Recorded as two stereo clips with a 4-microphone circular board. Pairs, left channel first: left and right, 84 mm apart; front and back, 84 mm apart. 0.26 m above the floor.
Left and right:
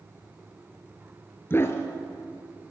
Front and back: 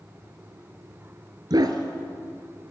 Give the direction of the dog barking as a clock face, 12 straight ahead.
7 o'clock.